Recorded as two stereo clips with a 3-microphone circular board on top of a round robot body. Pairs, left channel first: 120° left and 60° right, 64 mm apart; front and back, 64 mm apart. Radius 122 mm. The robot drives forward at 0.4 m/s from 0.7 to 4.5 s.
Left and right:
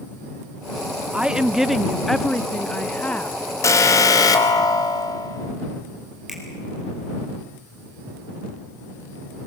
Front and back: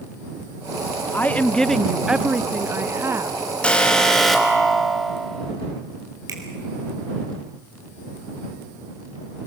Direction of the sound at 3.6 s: 75° left.